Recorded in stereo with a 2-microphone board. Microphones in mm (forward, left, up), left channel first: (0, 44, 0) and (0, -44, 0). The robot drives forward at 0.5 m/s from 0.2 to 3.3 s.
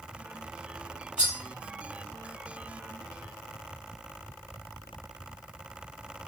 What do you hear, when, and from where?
1.2 s cutlery clinking: 15° right (ahead or behind), 1.5 m